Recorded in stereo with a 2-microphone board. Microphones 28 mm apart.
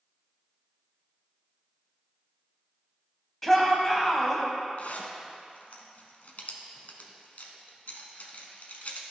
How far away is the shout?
About 1.3 m.